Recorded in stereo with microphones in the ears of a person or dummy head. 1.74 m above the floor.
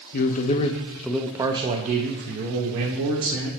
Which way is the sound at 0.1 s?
50° left (ahead or behind).